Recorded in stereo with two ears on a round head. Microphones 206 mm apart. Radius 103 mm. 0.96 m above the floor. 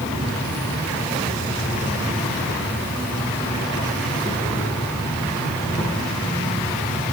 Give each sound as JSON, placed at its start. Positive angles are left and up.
{"t": 0.0, "sound": "an insect", "side_deg": 20, "distance_m": 8.0}